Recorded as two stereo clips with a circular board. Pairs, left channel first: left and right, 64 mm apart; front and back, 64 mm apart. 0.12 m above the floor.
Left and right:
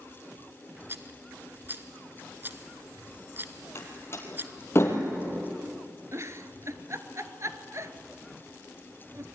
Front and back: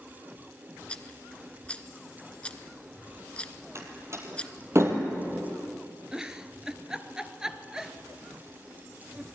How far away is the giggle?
About 1.2 m.